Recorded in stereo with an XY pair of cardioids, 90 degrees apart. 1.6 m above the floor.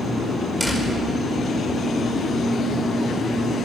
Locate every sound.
0.6 s a door slam: 5° right, 5 m